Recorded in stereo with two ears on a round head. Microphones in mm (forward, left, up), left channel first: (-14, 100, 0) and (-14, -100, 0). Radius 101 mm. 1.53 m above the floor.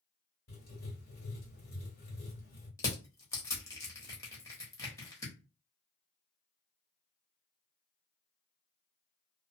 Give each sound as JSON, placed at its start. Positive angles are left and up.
{"t": 0.5, "sound": "writing", "side_deg": 40, "distance_m": 1.8}
{"t": 2.8, "sound": "crushing", "side_deg": 10, "distance_m": 0.9}